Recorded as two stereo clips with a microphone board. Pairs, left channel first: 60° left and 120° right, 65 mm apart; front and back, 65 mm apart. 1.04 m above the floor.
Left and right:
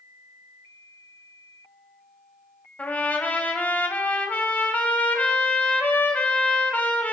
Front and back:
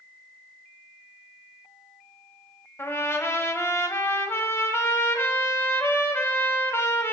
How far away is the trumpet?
About 1.0 m.